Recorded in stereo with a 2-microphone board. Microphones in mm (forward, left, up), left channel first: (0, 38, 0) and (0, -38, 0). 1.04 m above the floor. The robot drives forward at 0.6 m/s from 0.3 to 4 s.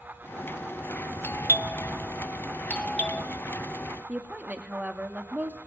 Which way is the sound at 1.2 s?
35° left (ahead or behind).